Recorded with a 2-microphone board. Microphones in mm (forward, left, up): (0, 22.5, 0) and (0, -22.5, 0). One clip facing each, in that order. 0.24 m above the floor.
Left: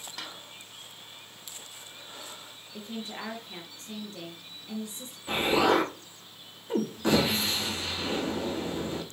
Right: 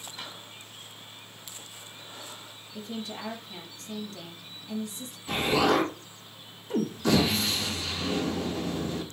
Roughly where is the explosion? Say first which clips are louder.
Even; left.